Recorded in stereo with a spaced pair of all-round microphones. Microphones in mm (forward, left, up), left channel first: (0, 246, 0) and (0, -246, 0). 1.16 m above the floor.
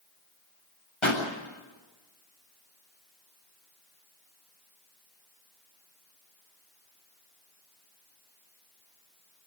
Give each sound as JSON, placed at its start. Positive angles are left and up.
{"t": 1.0, "sound": "a pop", "side_deg": 85, "distance_m": 8.0}